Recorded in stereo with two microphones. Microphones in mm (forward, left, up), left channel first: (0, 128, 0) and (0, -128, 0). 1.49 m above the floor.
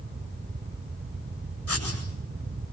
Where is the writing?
80° left, 8 m.